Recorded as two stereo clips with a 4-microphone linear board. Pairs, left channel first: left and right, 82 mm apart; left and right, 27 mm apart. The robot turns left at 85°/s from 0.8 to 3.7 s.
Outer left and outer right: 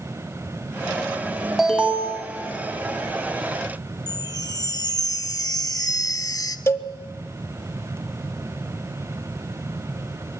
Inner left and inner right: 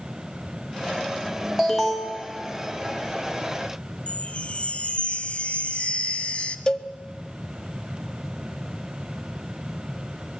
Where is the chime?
50° left (ahead or behind), 0.7 m.